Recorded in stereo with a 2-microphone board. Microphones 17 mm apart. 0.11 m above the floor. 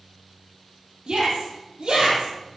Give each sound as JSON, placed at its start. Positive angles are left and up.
{"t": 1.1, "sound": "a shout", "side_deg": -65, "distance_m": 3.5}